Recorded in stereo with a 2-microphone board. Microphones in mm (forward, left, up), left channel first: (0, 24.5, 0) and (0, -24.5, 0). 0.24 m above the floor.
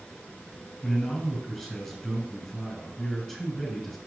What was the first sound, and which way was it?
A man speaking, 15° left (ahead or behind).